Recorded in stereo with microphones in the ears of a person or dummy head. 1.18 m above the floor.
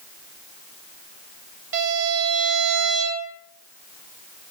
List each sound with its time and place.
1.7 s a violin: 75° right (ahead or behind), 1.9 m